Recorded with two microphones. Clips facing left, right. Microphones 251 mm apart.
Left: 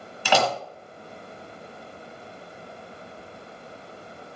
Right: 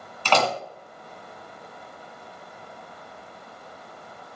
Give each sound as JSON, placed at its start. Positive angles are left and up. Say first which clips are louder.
{"t": 0.2, "sound": "a door slam", "louder": "even", "side_deg": 10, "distance_m": 1.2}